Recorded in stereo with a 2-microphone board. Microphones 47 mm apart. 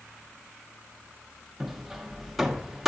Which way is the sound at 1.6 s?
5° right (ahead or behind).